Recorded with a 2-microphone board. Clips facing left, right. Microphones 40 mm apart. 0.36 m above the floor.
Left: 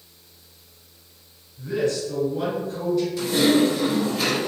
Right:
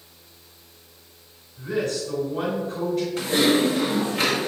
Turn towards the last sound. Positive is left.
turn(degrees=-55)  # may be behind; listen again after turning